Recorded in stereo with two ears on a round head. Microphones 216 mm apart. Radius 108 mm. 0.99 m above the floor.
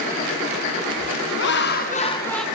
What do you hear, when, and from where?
1.4 s laughter: 50° left (ahead or behind), 1.0 m; by 2.5 s centre (ahead or behind), 0.7 m